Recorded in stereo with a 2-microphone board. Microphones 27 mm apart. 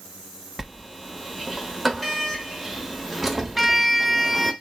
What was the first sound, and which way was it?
A sliding door, centre (ahead or behind).